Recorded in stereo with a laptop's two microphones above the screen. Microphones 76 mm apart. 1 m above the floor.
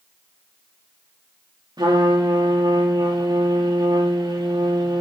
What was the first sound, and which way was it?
A trumpet, 70° right (ahead or behind).